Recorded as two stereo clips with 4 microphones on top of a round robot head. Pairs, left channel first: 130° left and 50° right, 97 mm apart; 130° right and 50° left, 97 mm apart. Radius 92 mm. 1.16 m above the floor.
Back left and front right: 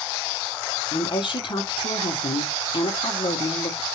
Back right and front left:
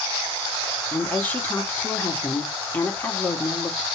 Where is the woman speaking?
160° left, 1.2 m.